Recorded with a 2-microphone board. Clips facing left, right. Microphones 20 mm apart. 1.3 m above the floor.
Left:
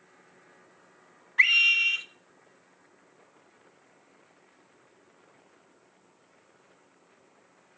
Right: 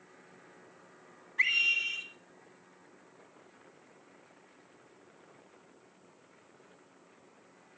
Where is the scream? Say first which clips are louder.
Left 7 dB; 45° left (ahead or behind), 2.0 m.